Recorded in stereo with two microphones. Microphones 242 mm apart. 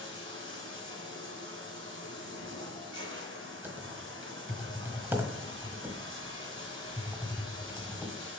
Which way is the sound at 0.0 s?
55° right (ahead or behind).